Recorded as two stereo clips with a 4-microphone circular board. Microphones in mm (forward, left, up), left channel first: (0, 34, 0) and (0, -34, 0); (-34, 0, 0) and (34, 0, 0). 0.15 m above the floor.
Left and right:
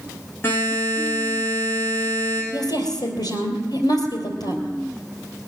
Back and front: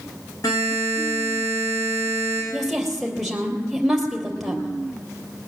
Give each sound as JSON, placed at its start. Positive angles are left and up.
{"t": 0.4, "sound": "a buzzer", "azimuth_deg": 150, "distance_m": 7.5}
{"t": 2.5, "sound": "a woman speaking", "azimuth_deg": 90, "distance_m": 3.0}